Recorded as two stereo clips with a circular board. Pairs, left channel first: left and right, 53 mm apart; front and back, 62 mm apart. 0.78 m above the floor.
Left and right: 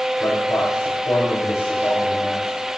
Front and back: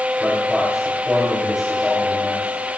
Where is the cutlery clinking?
No cutlery clinking in this recording.